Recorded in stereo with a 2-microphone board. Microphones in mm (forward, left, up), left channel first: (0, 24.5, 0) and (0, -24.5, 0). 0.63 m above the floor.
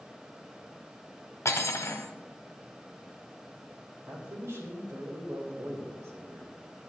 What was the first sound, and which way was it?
Cutlery clinking, 75° left (ahead or behind).